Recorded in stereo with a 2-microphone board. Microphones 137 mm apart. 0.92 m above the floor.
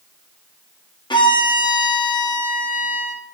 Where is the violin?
35° left (ahead or behind), 0.5 m.